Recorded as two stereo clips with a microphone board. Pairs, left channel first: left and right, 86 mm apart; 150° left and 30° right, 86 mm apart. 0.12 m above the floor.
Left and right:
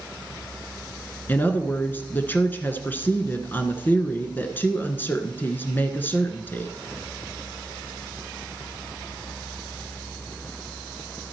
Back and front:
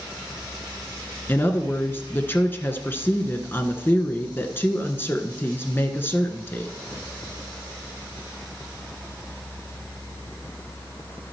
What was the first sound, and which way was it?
A woman speaking, 125° left.